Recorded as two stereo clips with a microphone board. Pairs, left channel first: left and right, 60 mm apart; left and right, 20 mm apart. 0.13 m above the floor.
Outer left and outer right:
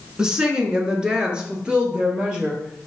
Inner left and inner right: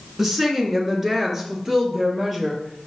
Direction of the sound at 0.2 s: 15° right (ahead or behind).